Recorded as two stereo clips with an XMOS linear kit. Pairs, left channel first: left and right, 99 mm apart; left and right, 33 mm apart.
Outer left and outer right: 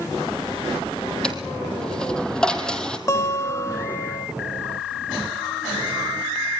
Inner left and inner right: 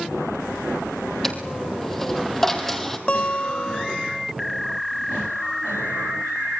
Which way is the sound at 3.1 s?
35° left (ahead or behind).